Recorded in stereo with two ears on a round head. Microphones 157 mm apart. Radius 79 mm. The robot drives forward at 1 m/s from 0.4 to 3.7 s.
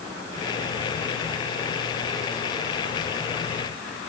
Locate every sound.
Only background noise.